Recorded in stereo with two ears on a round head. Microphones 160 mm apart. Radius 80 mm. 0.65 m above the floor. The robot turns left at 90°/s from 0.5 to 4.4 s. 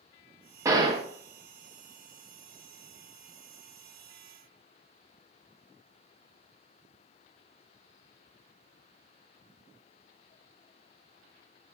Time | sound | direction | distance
0.7 | a gunshot | 30° right | 0.7 m